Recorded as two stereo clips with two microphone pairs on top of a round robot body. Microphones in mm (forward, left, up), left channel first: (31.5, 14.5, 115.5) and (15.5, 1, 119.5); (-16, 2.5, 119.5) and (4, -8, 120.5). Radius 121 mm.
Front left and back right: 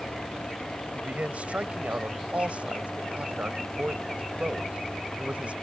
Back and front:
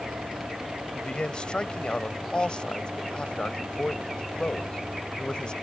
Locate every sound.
0.9 s a man speaking: 160° right